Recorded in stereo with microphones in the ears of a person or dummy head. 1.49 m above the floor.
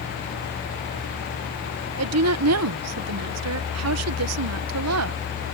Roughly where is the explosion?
I don't hear an explosion.